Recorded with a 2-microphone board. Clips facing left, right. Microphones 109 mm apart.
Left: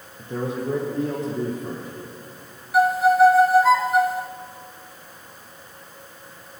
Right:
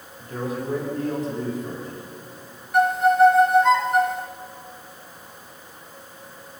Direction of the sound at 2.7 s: 5° left (ahead or behind).